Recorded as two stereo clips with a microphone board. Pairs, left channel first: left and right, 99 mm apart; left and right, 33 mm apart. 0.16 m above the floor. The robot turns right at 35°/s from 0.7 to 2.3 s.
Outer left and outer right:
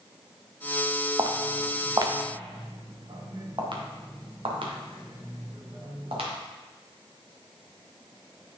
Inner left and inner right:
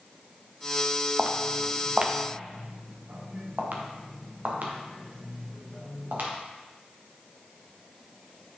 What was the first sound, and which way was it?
Footsteps, 45° right (ahead or behind).